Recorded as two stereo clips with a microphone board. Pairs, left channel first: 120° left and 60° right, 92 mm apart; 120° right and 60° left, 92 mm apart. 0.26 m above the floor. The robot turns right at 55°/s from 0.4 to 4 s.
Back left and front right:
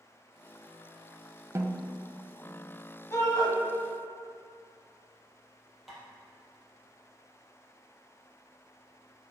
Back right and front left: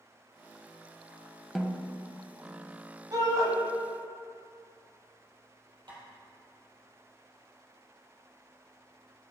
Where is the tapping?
30° left, 2.5 m.